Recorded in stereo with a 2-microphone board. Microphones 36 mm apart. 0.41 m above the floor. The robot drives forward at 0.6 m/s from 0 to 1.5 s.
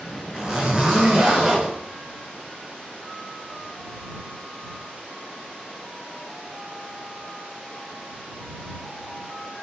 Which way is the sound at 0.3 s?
25° right (ahead or behind).